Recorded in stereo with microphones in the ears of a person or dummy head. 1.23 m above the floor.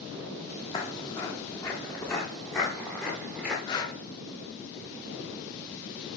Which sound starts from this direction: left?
Breathing, at 3.7 s.